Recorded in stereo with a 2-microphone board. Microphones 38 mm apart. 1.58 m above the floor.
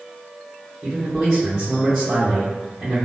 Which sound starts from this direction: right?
A man speaking, at 0.8 s.